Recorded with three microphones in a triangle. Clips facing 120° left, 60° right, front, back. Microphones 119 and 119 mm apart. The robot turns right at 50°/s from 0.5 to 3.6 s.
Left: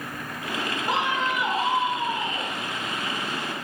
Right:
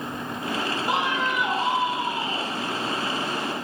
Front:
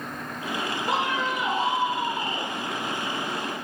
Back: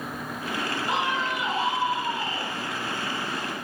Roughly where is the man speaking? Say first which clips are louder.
Left 1 dB, front 2 dB; ahead.